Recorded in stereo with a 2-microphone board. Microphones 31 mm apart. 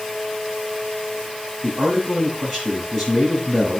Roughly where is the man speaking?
Centre.